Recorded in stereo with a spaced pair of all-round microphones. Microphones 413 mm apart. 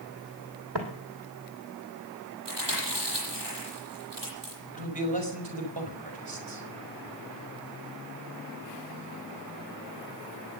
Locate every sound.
0.8 s footsteps: 65° right (ahead or behind), 2.5 m
2.5 s chewing: 75° right (ahead or behind), 9.5 m
4.7 s a man speaking: 85° right, 5 m